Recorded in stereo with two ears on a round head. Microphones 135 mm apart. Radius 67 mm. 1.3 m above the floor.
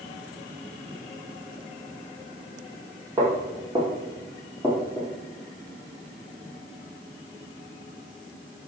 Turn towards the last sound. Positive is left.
turn(degrees=10)  # may be behind; listen again after turning